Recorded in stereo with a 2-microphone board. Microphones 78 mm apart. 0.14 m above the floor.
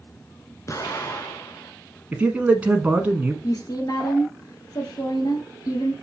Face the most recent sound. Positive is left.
turn(degrees=55)  # may be behind; listen again after turning